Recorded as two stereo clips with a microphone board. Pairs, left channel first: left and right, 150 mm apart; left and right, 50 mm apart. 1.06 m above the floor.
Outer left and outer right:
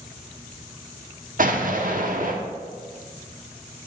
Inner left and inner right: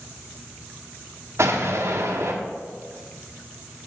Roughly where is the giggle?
I don't hear a giggle.